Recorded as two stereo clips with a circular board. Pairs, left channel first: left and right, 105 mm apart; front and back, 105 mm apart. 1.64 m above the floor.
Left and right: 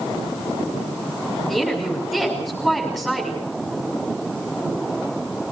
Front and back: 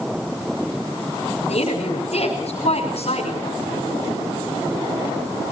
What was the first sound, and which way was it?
A woman speaking, straight ahead.